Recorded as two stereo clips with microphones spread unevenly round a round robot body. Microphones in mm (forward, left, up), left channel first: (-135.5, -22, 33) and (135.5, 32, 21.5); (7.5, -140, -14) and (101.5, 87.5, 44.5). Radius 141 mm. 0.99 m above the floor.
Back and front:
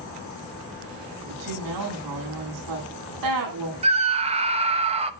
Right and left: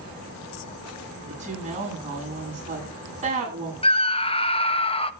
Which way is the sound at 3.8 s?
55° right.